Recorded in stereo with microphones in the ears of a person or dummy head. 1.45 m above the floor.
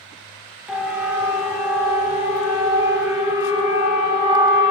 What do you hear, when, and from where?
0.7 s a siren: 10° right (ahead or behind), 2 m; by 4.7 s 25° right (ahead or behind), 4 m